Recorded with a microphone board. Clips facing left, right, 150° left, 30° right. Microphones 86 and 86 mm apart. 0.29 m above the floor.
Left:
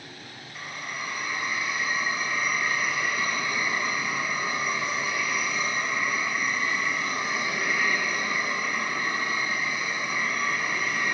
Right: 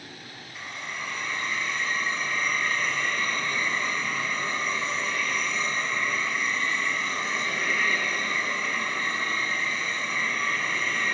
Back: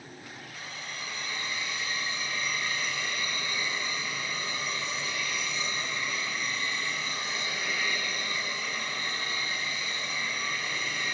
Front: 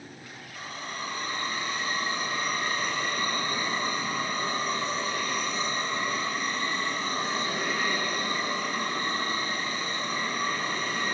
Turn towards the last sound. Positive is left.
turn(degrees=10)